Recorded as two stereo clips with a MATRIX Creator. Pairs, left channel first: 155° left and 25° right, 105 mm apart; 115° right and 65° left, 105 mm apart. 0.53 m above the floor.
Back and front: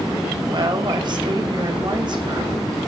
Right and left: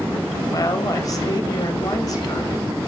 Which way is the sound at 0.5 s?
60° right.